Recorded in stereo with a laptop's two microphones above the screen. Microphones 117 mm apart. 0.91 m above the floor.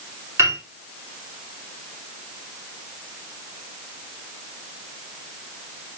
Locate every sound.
0.4 s a piano: 25° right (ahead or behind), 2.5 m